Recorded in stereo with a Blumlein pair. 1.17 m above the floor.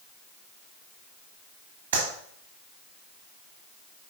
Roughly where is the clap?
Ahead right.